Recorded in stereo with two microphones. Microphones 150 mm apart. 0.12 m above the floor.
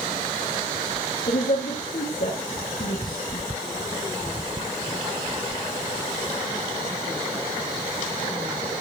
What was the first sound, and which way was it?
A woman speaking, 75° left (ahead or behind).